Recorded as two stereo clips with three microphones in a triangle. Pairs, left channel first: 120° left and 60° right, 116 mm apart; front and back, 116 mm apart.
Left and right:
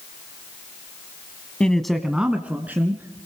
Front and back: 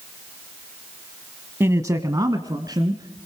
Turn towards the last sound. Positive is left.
turn(degrees=-130)